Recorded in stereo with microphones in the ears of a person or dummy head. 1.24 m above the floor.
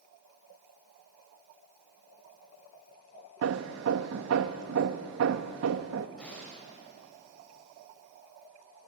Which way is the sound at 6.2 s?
5° left (ahead or behind).